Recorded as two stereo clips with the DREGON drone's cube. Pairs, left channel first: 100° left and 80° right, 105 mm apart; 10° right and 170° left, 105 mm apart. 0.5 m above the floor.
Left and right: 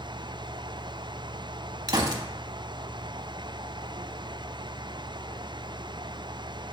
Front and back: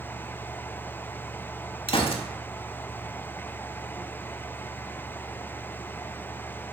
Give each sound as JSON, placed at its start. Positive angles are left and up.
{"t": 1.9, "sound": "a gunshot", "azimuth_deg": -30, "distance_m": 0.6}